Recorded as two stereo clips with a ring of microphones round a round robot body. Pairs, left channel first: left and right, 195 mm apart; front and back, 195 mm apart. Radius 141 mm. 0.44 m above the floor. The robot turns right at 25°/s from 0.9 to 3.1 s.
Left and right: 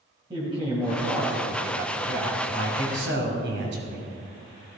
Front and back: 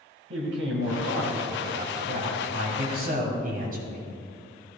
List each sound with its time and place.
0.3 s a man speaking: 160° right, 3 m; by 2.4 s 125° right, 3 m
2.5 s a man speaking: 140° right, 2.5 m; by 4.1 s 125° right, 2.5 m